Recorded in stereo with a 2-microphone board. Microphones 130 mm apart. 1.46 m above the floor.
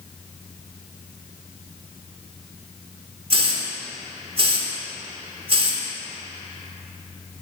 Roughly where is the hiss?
Right.